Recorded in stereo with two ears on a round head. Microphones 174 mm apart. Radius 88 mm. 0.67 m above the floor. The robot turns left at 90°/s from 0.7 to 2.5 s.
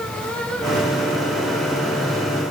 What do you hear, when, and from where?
Only background noise.